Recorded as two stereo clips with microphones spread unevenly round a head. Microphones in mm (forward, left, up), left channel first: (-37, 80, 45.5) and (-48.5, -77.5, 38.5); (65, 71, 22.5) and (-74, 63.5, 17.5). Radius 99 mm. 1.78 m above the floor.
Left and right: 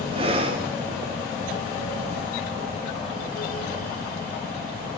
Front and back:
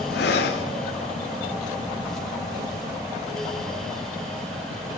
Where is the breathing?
30° right, 0.6 m.